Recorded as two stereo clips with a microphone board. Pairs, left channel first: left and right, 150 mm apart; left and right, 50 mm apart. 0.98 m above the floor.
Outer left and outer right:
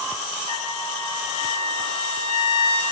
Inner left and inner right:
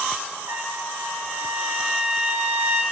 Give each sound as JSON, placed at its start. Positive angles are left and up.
{"t": 0.5, "sound": "a trumpet", "side_deg": -55, "distance_m": 1.1}